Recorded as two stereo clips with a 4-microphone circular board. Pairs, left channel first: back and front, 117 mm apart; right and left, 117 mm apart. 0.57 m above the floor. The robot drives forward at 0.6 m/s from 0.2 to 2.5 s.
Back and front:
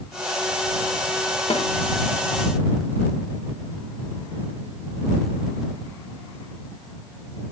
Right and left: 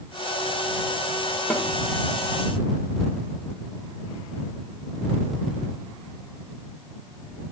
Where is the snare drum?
165° right, 1.2 m.